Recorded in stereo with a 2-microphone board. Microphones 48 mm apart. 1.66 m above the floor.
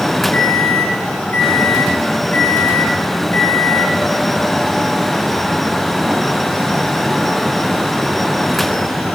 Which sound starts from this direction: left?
A microwave, at 0.3 s.